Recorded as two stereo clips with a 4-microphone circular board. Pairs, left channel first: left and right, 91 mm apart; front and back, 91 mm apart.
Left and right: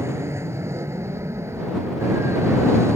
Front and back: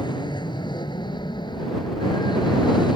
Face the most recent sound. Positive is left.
turn(degrees=-30)